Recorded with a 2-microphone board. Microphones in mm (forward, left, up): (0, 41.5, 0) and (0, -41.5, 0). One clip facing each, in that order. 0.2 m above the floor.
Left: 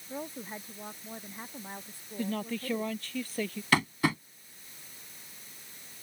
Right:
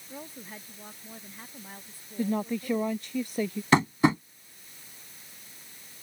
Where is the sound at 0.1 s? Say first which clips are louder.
Left 4 dB; 20° left (ahead or behind).